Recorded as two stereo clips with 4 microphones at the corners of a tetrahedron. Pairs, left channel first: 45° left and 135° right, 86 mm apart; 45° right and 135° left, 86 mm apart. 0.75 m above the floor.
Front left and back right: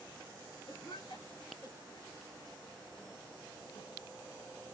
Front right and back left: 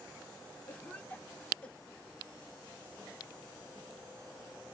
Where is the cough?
25° left, 2.0 m.